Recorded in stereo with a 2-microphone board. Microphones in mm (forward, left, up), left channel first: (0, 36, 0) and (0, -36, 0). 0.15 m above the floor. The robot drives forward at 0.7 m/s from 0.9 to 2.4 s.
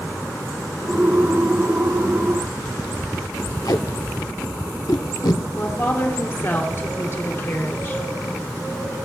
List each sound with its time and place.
3.6 s tape being pulled: 65° left (ahead or behind), 0.7 m
5.5 s a woman speaking: 40° left (ahead or behind), 2 m